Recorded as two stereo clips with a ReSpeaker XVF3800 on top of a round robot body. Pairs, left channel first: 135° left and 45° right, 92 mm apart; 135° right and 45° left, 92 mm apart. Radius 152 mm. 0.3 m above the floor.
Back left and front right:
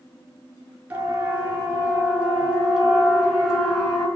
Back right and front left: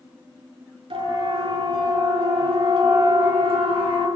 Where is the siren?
30° left, 7 m; by 4.1 s 50° left, 5.5 m.